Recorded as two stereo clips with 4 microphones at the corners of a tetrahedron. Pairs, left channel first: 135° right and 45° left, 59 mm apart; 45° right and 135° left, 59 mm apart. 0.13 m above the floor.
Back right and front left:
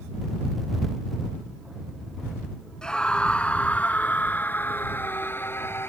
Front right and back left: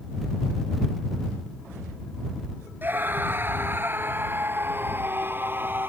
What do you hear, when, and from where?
2.8 s a scream: 155° left; by 5.9 s straight behind